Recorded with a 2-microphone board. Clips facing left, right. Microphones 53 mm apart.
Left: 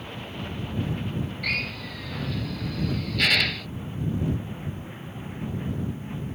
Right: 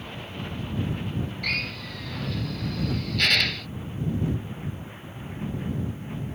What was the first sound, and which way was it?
A drill, 5° left (ahead or behind).